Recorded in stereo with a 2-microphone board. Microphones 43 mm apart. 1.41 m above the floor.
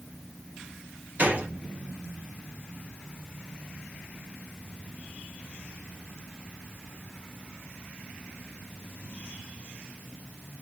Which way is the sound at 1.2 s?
30° right (ahead or behind).